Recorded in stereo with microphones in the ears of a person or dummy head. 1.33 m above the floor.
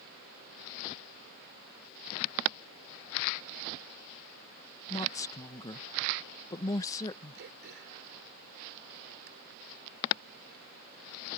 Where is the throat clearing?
60° right (ahead or behind).